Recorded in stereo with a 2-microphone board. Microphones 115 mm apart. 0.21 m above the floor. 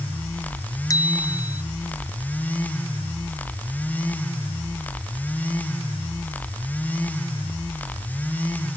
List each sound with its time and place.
0.9 s a bicycle bell: 30° left (ahead or behind)